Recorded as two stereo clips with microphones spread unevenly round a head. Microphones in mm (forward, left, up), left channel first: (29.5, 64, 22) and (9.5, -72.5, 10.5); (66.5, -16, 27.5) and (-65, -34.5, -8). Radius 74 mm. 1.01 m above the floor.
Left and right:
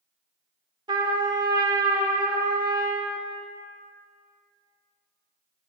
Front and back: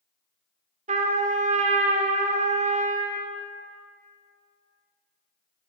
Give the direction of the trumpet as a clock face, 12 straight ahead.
5 o'clock.